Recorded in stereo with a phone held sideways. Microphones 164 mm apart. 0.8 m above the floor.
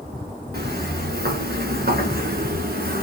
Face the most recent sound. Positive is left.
turn(degrees=-75)  # may be behind; listen again after turning